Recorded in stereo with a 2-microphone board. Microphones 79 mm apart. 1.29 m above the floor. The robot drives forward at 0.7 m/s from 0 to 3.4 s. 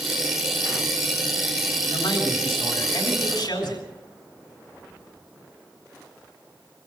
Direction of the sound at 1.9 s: 75° left (ahead or behind).